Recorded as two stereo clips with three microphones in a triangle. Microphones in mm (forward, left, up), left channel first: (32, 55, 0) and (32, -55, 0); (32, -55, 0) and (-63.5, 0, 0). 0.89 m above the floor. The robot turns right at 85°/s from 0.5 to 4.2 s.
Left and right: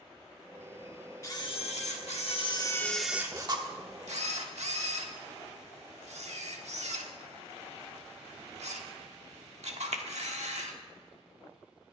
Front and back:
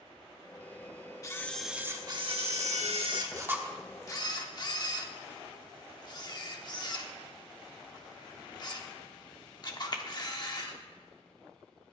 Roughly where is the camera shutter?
Ahead left.